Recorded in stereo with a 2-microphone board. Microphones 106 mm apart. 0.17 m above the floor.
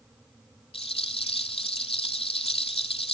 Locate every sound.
0.7 s a rattle: 60° left (ahead or behind), 1.5 m